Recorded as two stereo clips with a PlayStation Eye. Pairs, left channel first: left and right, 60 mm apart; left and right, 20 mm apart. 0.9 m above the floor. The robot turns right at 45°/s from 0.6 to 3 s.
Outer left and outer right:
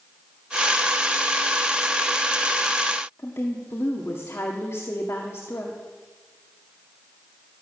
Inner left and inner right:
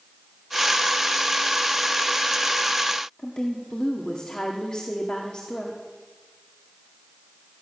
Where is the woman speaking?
50° left (ahead or behind), 1.8 m.